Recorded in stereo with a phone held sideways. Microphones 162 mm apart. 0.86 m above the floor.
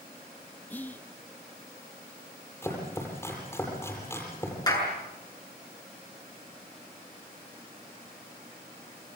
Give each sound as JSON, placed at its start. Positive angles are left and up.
{"t": 0.7, "sound": "whispering", "side_deg": 10, "distance_m": 0.6}
{"t": 2.6, "sound": "chopping", "side_deg": 15, "distance_m": 8.5}
{"t": 4.7, "sound": "a clap", "side_deg": 25, "distance_m": 7.5}